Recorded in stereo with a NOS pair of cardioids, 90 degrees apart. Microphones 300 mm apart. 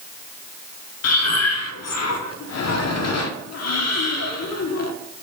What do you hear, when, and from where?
1.0 s breathing: 60° left, 0.9 m